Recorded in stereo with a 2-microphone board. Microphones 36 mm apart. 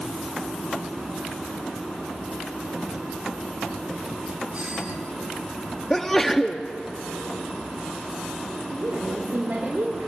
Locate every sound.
4.5 s a doorbell: 40° right (ahead or behind), 4 m
5.9 s a sneeze: 10° left (ahead or behind), 0.6 m
8.7 s a woman speaking: 70° right (ahead or behind), 3.5 m